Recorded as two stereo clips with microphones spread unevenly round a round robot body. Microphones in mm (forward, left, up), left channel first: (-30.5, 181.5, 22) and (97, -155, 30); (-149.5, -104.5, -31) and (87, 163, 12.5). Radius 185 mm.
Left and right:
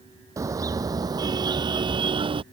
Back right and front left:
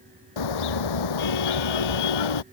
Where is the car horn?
150° right; by 2.4 s 145° right.